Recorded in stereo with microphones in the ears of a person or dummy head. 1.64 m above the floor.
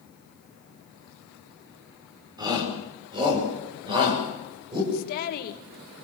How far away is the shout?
About 5 m.